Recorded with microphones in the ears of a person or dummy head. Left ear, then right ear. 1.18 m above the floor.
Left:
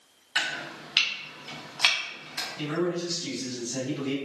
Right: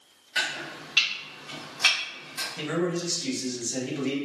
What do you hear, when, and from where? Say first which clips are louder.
0.3 s chopping: even; 30° left (ahead or behind), 0.7 m
2.6 s a man speaking: right 1 dB; 70° right (ahead or behind), 1.0 m